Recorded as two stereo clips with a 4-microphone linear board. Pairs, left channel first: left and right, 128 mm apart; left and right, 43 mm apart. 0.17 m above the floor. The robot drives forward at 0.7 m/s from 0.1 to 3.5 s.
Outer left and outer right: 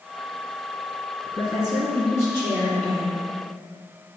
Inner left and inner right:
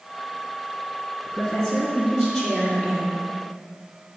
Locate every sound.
1.3 s a woman speaking: 15° left (ahead or behind), 1.8 m; by 3.2 s 10° left (ahead or behind), 3 m